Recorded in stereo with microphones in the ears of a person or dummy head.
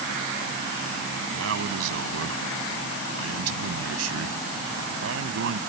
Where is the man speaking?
75° right (ahead or behind).